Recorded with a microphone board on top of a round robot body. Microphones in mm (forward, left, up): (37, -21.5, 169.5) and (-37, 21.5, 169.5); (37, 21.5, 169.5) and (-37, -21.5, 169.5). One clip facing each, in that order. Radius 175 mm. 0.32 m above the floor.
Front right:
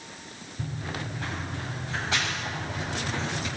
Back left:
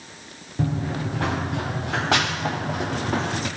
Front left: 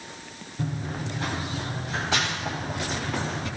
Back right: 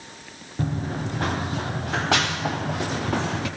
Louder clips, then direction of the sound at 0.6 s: Back left 9 dB, back right 4 dB; 160° left.